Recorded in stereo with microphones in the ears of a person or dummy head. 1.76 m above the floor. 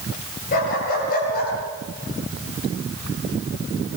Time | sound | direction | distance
0.5 | a dog barking | 45° left (ahead or behind) | 9 m